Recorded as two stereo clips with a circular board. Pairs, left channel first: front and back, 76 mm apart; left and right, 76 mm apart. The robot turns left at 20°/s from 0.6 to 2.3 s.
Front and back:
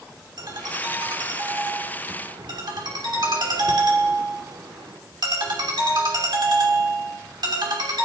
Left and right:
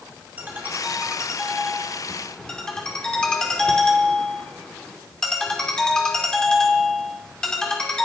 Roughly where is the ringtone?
Behind right.